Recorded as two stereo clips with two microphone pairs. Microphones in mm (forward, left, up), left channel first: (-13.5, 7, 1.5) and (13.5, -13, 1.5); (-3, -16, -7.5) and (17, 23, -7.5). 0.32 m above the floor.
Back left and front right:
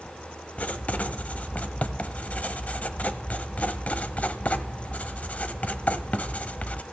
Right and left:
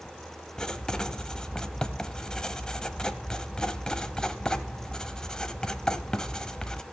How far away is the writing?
About 0.7 m.